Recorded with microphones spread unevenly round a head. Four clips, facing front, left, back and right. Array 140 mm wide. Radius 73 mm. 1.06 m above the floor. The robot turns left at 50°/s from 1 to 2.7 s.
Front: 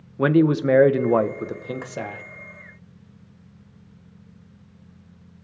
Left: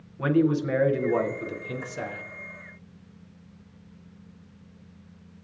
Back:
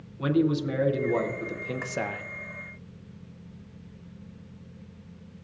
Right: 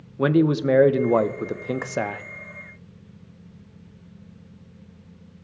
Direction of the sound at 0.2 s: 40° right.